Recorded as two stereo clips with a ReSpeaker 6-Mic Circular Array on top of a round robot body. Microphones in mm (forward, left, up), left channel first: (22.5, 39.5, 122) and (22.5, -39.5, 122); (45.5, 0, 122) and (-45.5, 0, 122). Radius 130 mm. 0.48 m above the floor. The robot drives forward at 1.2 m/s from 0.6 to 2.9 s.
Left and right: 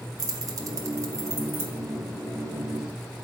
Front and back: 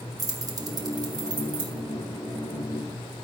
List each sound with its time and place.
0.2 s keys jangling: 135° right, 2.5 m; by 1.8 s 150° right, 3.5 m